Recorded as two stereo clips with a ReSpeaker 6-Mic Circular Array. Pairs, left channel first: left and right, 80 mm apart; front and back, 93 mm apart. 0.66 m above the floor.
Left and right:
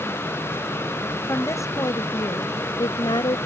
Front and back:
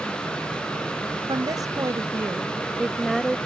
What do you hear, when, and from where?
1.3 s a woman speaking: 140° left; by 3.4 s 85° left